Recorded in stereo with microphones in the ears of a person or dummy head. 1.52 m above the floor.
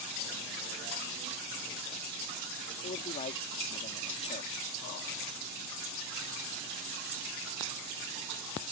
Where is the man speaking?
35° left (ahead or behind).